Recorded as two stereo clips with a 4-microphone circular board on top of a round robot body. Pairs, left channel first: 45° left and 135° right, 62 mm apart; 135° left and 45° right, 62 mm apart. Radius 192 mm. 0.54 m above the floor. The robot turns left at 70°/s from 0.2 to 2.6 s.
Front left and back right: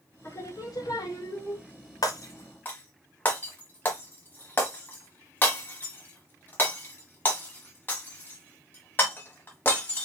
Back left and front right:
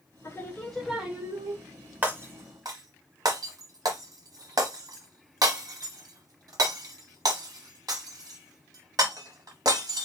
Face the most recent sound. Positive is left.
turn(degrees=-15)